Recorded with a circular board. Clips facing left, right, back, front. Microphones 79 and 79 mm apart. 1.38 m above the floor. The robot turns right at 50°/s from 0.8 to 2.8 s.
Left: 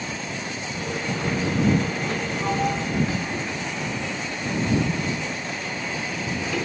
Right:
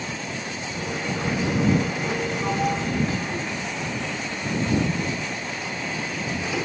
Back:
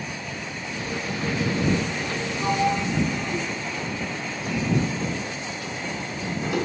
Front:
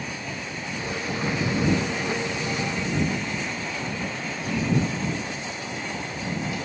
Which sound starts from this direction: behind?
A sliding door, at 2.4 s.